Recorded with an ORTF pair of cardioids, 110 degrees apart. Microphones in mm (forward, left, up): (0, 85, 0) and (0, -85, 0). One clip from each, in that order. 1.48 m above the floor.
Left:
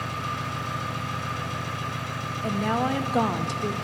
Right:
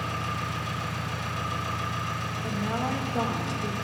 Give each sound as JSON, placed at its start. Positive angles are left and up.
{"t": 0.0, "sound": "an engine running", "azimuth_deg": 5, "distance_m": 3.0}
{"t": 2.4, "sound": "a woman speaking", "azimuth_deg": 35, "distance_m": 0.6}